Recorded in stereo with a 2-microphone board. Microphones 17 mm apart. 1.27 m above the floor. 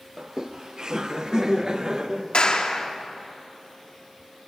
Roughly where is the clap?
Left.